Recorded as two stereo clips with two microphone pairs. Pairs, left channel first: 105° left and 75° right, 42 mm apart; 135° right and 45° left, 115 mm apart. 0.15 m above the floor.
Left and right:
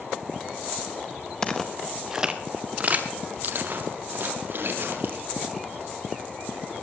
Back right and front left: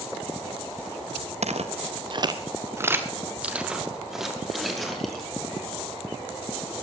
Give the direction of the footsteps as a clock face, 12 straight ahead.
11 o'clock.